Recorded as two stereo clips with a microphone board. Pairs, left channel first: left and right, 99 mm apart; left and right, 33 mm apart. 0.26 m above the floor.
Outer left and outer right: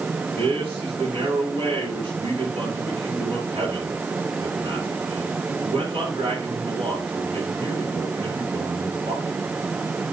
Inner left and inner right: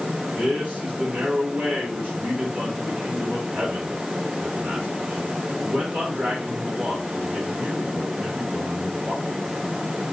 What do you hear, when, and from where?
0.4 s a man speaking: 70° right (ahead or behind), 4 m